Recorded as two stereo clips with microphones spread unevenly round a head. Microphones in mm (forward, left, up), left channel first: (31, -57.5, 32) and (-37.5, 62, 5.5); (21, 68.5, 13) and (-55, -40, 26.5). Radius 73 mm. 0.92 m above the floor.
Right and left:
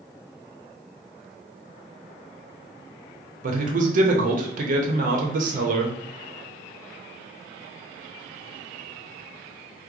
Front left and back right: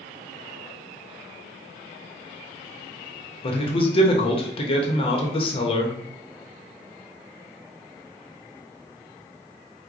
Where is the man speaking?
100° left, 0.8 m.